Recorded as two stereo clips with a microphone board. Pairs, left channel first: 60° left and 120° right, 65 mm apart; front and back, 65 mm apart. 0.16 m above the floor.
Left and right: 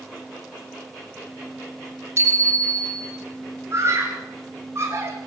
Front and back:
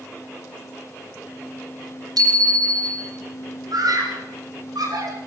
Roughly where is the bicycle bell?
Behind.